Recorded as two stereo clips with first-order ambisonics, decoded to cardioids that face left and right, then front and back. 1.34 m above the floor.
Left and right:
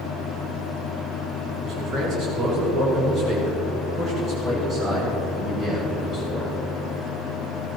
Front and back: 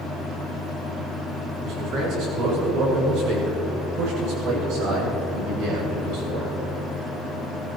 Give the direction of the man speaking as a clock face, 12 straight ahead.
5 o'clock.